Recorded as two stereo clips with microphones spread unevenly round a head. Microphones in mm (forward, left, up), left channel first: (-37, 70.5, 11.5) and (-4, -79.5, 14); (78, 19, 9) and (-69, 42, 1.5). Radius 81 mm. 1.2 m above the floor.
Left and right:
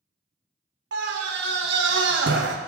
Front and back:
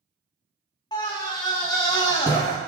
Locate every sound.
0.9 s a scream: 75° right, 1.4 m